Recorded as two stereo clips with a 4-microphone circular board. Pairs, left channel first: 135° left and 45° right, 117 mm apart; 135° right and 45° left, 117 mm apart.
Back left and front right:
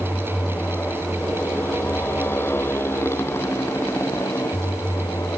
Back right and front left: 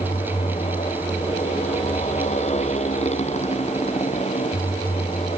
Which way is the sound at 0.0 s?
150° right.